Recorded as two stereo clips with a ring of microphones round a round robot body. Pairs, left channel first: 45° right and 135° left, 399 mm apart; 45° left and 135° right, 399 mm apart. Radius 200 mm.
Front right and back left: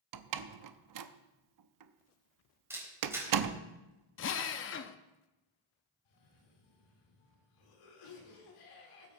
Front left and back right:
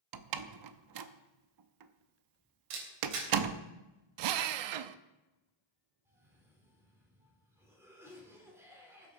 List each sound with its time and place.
0.1 s a door slam: straight behind, 0.8 m
2.7 s a camera shutter: 140° right, 4 m
4.2 s a drill: 105° right, 0.6 m
6.0 s a cough: 50° right, 3.5 m